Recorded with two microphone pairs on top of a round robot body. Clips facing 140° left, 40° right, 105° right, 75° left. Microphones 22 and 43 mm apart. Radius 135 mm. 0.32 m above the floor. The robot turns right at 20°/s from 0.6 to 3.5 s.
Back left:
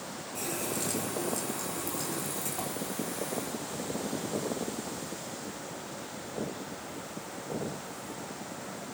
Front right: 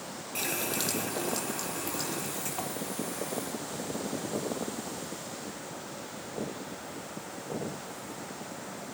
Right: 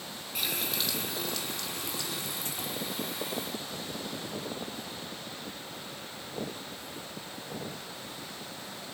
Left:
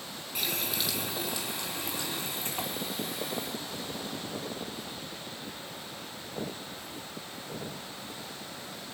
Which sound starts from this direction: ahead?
A running tap, at 0.3 s.